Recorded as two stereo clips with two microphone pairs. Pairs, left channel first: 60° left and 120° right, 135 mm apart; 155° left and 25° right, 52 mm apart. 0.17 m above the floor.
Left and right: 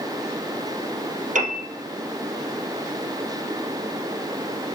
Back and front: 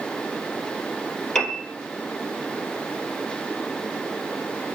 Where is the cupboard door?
No cupboard door in this recording.